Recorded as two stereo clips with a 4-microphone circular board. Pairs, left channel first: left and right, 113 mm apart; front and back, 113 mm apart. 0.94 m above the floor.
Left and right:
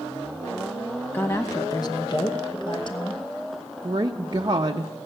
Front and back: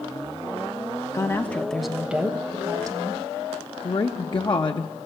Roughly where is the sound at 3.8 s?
Ahead right.